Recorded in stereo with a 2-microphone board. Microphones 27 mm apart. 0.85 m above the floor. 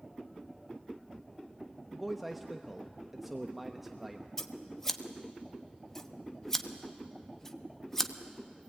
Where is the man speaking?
5° right (ahead or behind), 0.9 m.